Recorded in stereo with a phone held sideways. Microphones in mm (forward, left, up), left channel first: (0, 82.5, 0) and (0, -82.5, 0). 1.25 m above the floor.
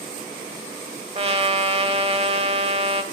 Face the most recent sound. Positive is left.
turn(degrees=-40)  # may be behind; listen again after turning